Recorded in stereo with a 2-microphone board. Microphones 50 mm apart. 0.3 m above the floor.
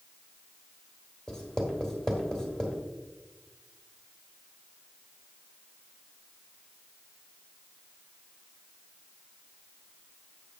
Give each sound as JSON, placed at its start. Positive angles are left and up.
{"t": 1.3, "sound": "writing", "side_deg": 10, "distance_m": 1.5}